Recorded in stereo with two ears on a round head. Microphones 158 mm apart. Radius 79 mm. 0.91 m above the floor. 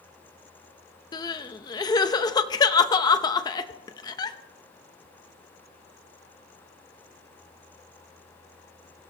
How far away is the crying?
About 0.8 m.